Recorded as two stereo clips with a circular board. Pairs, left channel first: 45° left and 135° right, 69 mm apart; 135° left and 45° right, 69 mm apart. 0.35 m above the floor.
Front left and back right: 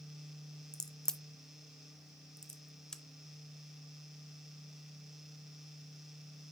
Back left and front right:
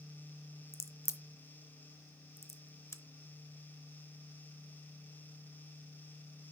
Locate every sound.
0.7 s a crack: 120° left, 0.6 m